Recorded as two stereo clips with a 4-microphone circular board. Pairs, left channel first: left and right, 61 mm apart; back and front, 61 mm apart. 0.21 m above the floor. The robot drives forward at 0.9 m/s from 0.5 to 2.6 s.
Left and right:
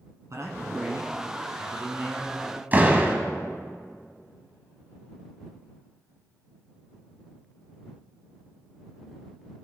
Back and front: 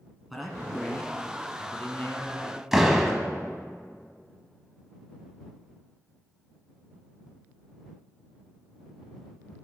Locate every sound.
0.3 s a man speaking: 90° right, 1.9 m; by 2.6 s 140° right, 2.5 m
2.7 s a door slam: 80° right, 1.0 m